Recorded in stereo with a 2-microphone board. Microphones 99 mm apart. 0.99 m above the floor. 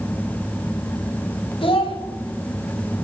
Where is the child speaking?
65° left (ahead or behind), 2.5 m.